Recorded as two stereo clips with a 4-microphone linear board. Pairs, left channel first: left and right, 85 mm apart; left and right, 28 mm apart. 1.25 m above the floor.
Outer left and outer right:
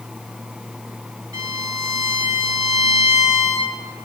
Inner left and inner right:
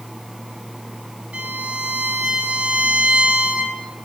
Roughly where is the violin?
Right.